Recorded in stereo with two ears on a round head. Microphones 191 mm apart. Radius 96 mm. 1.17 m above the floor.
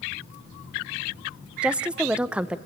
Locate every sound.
1.6 s a woman speaking: 5° right (ahead or behind), 0.6 m